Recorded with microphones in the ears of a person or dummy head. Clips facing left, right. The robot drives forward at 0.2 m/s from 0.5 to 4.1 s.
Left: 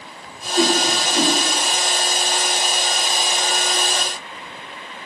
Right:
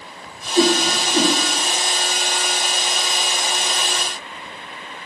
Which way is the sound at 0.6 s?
10° right (ahead or behind).